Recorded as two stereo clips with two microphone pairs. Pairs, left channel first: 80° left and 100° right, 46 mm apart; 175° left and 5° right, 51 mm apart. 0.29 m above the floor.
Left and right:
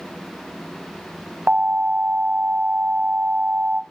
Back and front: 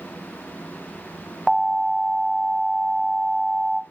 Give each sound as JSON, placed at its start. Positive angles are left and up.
{"t": 1.5, "sound": "an alarm", "azimuth_deg": -90, "distance_m": 1.0}